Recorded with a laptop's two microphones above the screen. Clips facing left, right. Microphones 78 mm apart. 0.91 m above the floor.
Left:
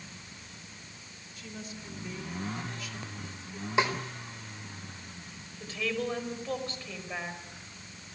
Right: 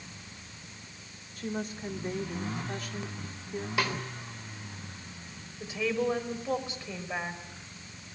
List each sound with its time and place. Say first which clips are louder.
1.4 s a woman speaking: right 9 dB; 55° right (ahead or behind), 3 m
3.8 s a snare drum: left 4 dB; 25° left (ahead or behind), 4 m
5.6 s a woman speaking: right 3 dB; 15° right (ahead or behind), 5.5 m